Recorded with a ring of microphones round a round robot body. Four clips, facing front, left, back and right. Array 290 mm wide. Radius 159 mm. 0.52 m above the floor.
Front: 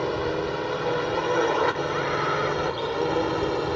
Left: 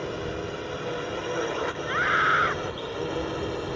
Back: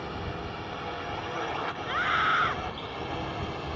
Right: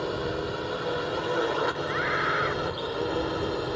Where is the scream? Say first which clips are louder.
Left 3 dB, front 2 dB; 125° left.